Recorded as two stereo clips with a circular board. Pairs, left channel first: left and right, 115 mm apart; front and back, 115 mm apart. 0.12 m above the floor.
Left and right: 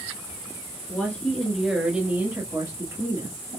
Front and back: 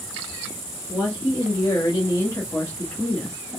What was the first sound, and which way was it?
A woman speaking, 25° left.